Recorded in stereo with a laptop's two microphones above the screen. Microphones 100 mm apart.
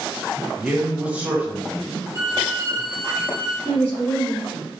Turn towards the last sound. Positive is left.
turn(degrees=-20)  # may be behind; listen again after turning